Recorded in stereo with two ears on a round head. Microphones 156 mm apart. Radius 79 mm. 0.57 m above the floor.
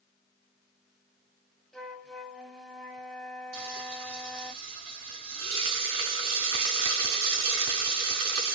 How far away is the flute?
About 0.9 m.